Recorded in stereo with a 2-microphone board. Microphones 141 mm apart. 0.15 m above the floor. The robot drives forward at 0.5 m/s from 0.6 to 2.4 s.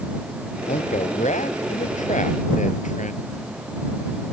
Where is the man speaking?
60° left (ahead or behind); by 3.2 s 65° left (ahead or behind).